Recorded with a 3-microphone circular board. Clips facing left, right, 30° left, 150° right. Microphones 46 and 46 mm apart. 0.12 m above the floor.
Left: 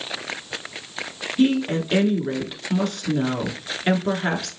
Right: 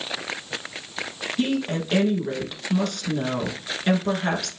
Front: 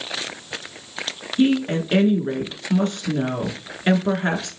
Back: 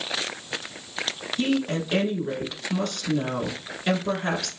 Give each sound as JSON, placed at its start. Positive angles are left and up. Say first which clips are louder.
{"t": 1.4, "sound": "a woman speaking", "louder": "left 5 dB, front 6 dB", "azimuth_deg": 35, "distance_m": 1.2}